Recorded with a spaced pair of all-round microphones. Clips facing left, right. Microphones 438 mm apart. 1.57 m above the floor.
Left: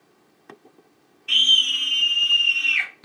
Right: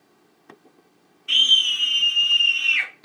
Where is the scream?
5° left (ahead or behind), 0.5 m; by 2.9 s 55° left (ahead or behind), 2 m.